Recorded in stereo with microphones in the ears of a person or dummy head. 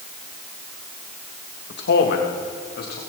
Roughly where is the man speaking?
Left.